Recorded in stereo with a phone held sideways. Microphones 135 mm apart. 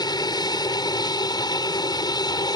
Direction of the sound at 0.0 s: 30° left (ahead or behind).